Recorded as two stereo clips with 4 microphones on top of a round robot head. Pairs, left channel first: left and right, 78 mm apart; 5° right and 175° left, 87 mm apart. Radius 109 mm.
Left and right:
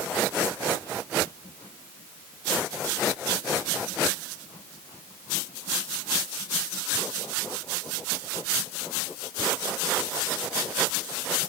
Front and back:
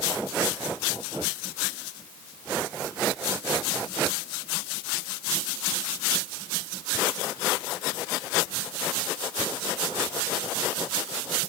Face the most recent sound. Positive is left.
No sound to turn to.